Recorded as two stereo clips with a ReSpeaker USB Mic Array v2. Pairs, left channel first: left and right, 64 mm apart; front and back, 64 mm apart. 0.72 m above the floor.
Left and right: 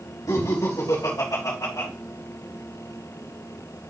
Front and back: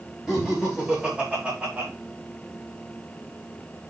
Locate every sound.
0.3 s laughter: 100° left, 3 m; by 1.9 s 125° left, 3 m